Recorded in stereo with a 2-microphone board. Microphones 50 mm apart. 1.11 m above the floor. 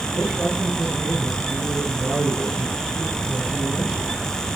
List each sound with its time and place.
0.1 s a man speaking: 5° right (ahead or behind), 8 m